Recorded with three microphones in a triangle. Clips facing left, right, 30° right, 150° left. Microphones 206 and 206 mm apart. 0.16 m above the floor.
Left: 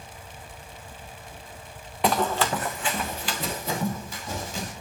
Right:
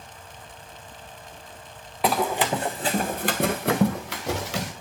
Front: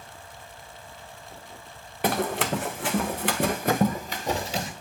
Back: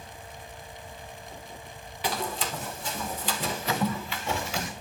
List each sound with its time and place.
2.0 s running footsteps: straight ahead, 1.0 m; by 4.7 s 90° right, 1.6 m